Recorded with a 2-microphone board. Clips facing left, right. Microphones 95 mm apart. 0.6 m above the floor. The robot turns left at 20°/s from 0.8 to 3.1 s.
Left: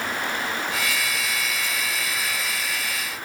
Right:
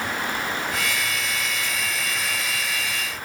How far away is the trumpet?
I don't hear a trumpet.